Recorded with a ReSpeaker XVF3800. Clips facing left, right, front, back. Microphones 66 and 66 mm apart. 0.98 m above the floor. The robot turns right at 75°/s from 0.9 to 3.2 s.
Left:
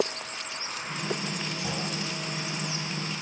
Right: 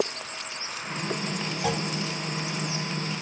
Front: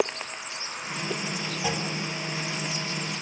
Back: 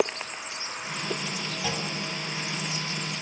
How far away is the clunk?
About 2.5 m.